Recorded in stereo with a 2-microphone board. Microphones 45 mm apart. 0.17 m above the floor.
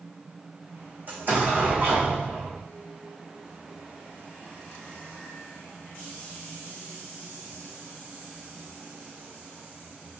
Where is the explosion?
45° right (ahead or behind), 3.5 m.